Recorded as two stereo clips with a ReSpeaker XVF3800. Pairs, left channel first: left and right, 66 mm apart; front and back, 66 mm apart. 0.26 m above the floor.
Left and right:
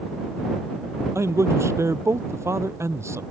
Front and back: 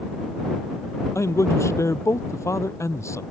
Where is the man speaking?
45° right.